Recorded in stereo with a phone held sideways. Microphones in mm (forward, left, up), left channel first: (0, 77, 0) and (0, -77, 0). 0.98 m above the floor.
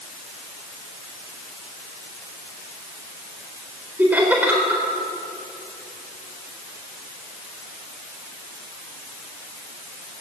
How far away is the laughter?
About 4 m.